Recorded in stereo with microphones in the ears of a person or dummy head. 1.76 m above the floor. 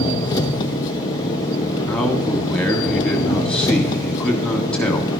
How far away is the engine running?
About 0.7 m.